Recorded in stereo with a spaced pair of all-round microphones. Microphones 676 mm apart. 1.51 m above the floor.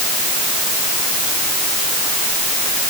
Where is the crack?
I don't hear a crack.